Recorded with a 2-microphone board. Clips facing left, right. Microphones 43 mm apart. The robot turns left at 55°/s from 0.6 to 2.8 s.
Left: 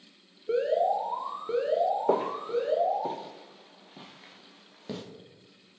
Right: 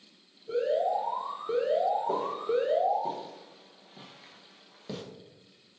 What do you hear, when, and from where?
0.5 s an alarm: 65° left, 1.5 m; by 3.1 s 55° right, 1.5 m
2.1 s footsteps: 75° left (ahead or behind), 0.7 m; by 5.0 s 10° left (ahead or behind), 2.5 m